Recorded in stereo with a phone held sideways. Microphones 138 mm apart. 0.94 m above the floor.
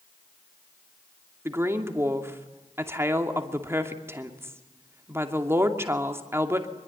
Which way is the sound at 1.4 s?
20° right (ahead or behind).